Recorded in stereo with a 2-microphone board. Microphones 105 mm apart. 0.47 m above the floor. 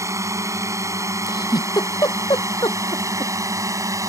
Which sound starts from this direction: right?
A drone, at 0.0 s.